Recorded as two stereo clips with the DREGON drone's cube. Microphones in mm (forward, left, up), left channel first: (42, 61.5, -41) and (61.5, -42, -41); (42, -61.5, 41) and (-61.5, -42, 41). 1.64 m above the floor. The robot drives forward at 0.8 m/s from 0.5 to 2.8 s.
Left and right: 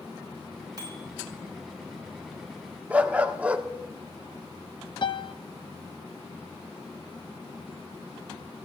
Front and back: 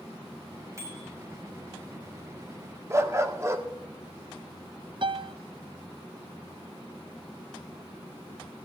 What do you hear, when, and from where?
0.8 s a bicycle bell: 130° right, 8 m
2.9 s a dog barking: 150° right, 1.4 m
5.0 s a piano: 140° left, 0.7 m